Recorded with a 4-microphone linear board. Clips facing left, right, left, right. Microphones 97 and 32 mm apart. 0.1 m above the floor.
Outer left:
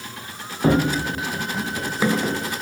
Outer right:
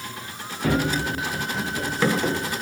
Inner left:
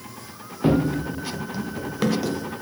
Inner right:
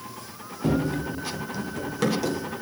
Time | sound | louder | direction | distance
0.6 | running footsteps | outer left 4 dB, inner left 4 dB | 30° left (ahead or behind) | 0.6 m